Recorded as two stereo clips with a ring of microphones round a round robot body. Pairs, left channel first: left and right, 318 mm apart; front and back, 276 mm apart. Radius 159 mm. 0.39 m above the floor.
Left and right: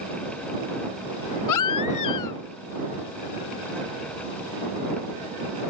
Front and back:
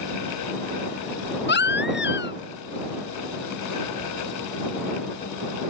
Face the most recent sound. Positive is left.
turn(degrees=55)